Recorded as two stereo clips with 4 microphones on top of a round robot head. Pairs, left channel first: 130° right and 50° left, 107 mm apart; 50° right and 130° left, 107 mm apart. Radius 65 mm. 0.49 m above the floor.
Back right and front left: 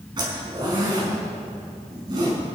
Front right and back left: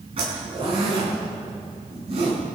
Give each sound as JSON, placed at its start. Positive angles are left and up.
{"t": 0.2, "sound": "a zipper", "azimuth_deg": 95, "distance_m": 6.0}